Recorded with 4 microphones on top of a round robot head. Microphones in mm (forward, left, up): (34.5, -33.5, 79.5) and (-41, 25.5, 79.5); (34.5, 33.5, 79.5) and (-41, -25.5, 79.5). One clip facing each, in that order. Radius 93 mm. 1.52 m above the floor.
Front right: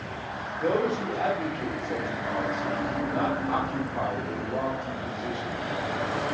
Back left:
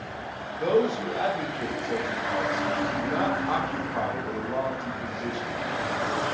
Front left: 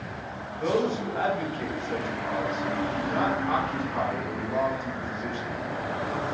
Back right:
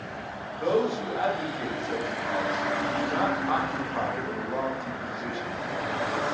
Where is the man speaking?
140° left, 1.2 m.